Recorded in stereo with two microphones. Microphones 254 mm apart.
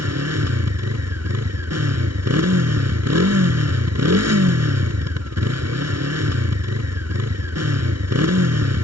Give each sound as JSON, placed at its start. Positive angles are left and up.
{"t": 0.0, "sound": "a motorcycle", "side_deg": -85}